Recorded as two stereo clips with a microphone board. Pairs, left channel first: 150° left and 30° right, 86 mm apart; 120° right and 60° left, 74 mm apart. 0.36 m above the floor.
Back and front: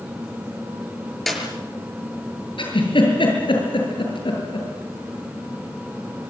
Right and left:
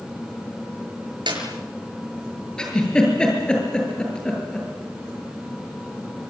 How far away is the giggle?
About 8 m.